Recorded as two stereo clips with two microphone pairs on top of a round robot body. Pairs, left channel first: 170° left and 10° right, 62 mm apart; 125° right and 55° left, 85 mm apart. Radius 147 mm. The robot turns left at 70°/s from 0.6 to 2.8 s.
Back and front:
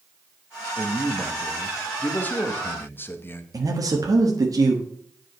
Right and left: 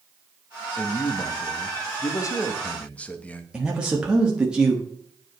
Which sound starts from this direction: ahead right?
A man speaking, at 0.8 s.